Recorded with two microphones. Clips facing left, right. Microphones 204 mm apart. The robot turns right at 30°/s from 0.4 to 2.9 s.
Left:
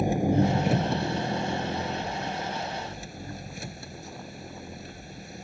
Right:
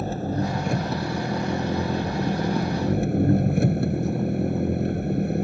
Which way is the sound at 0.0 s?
165° left.